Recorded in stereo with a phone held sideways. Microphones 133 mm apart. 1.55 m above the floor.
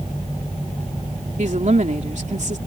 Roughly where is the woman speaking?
Right.